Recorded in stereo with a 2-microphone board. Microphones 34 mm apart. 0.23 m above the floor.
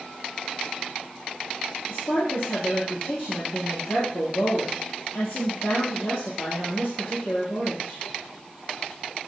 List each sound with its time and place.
1.9 s a woman speaking: 75° left (ahead or behind), 4.5 m